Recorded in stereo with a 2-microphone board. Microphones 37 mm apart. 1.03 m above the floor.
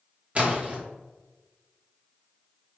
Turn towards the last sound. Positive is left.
turn(degrees=-30)  # may be behind; listen again after turning